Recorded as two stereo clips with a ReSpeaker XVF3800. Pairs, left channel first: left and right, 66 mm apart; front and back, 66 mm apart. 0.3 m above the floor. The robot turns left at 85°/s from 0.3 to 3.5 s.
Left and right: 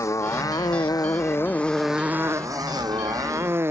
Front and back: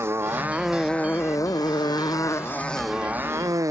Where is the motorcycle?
130° left; by 3.7 s 140° right.